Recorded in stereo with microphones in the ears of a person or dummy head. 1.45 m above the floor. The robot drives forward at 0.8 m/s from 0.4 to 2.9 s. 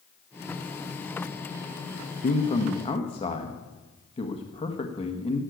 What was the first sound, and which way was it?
A man speaking, 35° left (ahead or behind).